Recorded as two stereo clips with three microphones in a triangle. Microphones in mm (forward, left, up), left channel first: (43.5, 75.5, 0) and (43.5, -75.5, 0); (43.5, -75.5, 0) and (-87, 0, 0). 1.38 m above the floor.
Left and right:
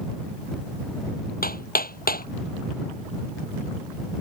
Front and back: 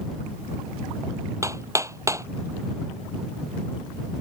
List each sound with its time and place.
1.4 s hammering: 80° left